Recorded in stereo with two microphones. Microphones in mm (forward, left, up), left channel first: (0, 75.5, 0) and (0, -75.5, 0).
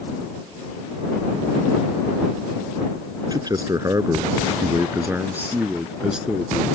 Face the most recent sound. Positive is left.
turn(degrees=0)  # may be behind; listen again after turning